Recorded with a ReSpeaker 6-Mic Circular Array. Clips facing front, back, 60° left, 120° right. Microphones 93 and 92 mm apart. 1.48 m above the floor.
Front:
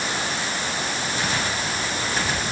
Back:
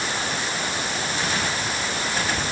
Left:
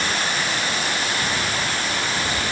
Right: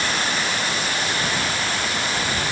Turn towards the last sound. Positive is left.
No sound to turn to.